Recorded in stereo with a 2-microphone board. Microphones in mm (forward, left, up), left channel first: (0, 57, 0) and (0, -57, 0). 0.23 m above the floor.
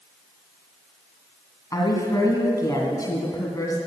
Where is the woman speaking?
35° left (ahead or behind), 2 m.